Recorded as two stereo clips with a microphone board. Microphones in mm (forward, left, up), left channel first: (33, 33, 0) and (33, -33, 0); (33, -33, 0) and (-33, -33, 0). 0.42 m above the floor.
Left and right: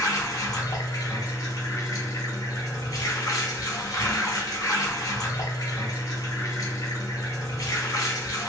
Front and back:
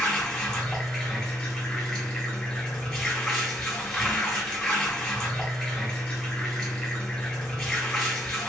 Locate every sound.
0.0 s running water: 80° left, 2 m